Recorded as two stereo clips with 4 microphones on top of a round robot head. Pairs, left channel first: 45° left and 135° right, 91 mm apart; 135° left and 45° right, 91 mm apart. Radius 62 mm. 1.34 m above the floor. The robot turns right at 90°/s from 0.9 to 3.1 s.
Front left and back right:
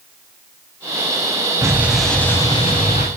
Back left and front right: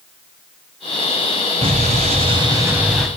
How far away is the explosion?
About 2.5 m.